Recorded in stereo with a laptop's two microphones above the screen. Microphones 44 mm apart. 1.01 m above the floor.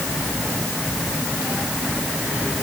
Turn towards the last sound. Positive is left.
No sound to turn to.